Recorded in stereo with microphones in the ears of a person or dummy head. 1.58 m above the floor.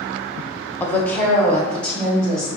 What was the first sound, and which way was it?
A woman speaking, 15° left (ahead or behind).